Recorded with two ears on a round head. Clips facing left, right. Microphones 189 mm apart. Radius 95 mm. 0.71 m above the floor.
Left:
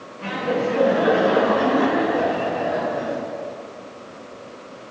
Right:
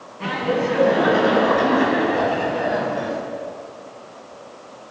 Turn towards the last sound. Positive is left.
turn(degrees=-80)